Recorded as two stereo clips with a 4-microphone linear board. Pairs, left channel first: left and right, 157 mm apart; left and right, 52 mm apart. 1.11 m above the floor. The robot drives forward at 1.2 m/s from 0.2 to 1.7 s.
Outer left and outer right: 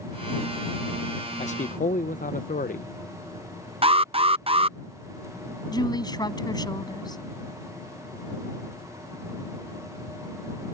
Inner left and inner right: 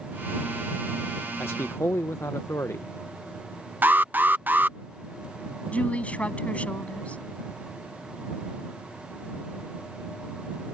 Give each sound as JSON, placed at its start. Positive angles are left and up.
{"t": 1.4, "sound": "a man speaking", "side_deg": 45}
{"t": 3.8, "sound": "an alarm", "side_deg": -40}
{"t": 5.7, "sound": "a woman speaking", "side_deg": 25}